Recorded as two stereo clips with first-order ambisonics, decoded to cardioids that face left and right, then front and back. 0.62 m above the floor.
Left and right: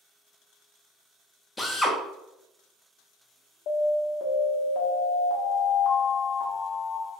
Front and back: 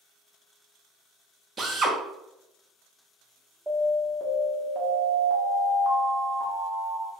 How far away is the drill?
About 0.5 m.